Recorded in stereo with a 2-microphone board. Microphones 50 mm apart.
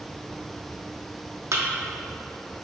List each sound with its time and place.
1.5 s a thud: 75° right (ahead or behind), 1.0 m